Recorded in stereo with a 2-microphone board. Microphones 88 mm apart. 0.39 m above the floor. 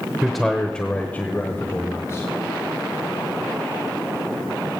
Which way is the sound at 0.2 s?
5° right (ahead or behind).